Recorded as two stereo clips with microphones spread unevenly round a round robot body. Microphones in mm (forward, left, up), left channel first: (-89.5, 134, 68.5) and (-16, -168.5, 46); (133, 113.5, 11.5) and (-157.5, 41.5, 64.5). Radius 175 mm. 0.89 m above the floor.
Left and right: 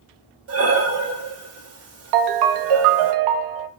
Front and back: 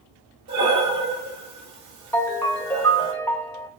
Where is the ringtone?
65° right, 0.5 m.